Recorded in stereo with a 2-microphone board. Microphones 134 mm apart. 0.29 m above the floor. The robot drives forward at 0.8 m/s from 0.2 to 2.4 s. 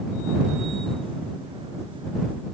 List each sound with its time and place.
Only background noise.